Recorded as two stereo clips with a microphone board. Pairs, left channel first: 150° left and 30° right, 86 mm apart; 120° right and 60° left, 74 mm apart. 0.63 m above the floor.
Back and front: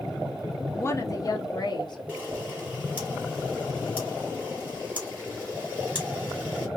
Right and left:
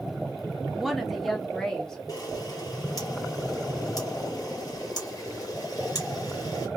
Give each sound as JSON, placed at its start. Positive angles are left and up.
{"t": 0.7, "sound": "a woman speaking", "azimuth_deg": 140, "distance_m": 0.7}
{"t": 2.1, "sound": "a camera shutter", "azimuth_deg": -100, "distance_m": 1.8}